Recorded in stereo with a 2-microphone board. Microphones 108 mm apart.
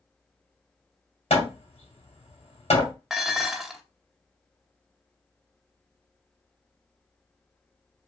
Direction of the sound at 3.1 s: 5° right (ahead or behind).